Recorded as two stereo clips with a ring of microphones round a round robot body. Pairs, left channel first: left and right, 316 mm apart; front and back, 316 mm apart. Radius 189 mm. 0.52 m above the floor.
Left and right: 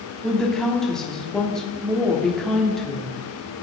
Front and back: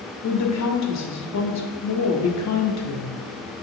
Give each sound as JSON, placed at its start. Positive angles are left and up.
{"t": 0.2, "sound": "a woman speaking", "azimuth_deg": 0, "distance_m": 1.2}